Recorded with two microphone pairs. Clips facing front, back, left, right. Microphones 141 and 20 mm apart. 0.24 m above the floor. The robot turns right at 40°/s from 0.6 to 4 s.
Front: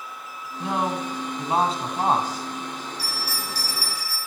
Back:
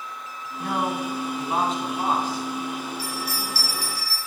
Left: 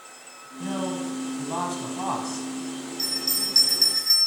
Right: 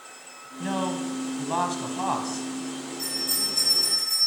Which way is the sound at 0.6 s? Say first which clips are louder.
Even, right 1 dB; 75° right.